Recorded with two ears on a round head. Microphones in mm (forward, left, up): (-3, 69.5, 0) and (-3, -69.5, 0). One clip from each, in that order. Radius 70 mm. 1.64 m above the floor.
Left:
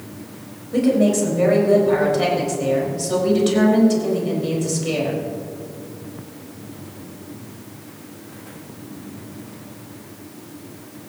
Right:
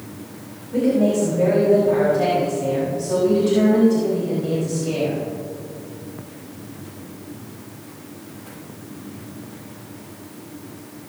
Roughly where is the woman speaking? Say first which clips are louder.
Left 1 dB; left.